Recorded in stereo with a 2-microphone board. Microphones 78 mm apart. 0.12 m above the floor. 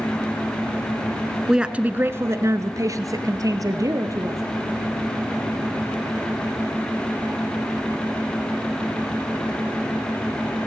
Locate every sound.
1.5 s a woman speaking: 5° right (ahead or behind), 1.2 m; by 4.4 s 45° right (ahead or behind), 3 m